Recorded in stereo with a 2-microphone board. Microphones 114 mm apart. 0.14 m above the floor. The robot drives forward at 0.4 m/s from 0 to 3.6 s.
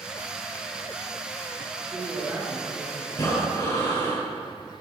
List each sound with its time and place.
1.8 s a man speaking: 20° right (ahead or behind), 1.6 m
3.1 s breathing: 35° left (ahead or behind), 3 m; by 4.2 s 40° left (ahead or behind), 3 m